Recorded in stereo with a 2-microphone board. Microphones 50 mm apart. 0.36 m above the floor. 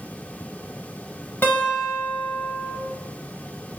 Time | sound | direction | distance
1.4 | a guitar | 45° left (ahead or behind) | 1.2 m